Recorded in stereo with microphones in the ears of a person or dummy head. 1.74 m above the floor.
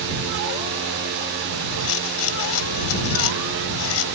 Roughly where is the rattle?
Left.